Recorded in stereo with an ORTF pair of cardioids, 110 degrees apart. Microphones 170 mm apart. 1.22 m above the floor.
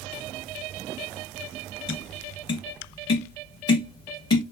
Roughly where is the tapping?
Ahead left.